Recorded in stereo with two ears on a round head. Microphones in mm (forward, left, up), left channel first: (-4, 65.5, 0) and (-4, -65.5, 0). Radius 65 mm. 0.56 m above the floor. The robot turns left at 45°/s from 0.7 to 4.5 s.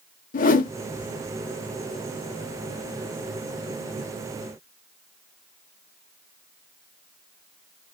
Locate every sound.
0.3 s a whoosh: 60° left (ahead or behind), 0.7 m